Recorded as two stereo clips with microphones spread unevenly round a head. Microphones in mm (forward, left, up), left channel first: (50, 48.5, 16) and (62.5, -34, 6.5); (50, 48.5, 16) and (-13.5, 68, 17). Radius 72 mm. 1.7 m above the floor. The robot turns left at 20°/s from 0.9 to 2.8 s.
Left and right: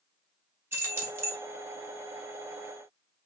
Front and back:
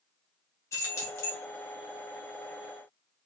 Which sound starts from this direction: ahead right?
Keys jangling, at 0.7 s.